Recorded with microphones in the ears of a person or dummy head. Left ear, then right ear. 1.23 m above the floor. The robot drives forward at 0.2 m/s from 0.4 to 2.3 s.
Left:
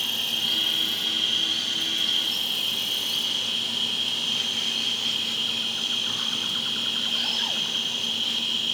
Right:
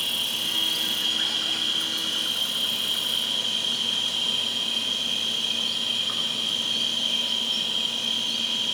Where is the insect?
50° right (ahead or behind), 1.5 m; by 8.7 s 45° right (ahead or behind), 1.7 m.